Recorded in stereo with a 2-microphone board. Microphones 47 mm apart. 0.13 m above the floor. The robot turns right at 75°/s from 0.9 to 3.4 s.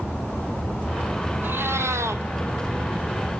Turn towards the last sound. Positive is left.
turn(degrees=15)